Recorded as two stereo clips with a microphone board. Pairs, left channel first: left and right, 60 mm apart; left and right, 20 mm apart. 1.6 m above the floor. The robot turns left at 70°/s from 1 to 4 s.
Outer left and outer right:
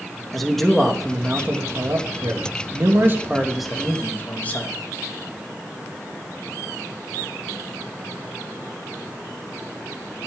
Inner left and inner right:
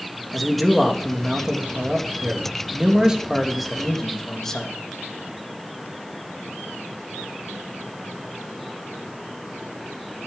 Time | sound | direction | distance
0.3 | a man speaking | 5° left | 3 m